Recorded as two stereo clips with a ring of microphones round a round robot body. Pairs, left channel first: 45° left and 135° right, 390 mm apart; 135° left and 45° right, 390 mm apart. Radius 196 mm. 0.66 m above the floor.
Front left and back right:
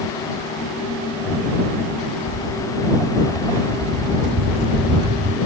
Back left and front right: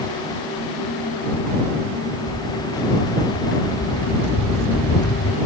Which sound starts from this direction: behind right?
Footsteps, at 2.3 s.